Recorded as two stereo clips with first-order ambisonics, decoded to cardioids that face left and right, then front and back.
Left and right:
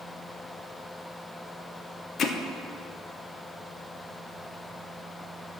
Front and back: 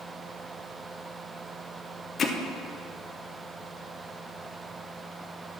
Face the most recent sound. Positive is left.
turn(degrees=50)